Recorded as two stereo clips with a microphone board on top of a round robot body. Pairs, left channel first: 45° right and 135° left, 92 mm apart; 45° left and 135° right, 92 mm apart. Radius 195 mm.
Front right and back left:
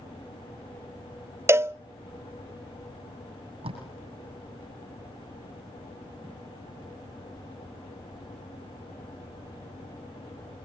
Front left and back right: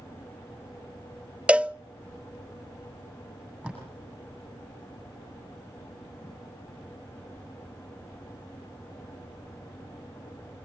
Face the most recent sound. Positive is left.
turn(degrees=150)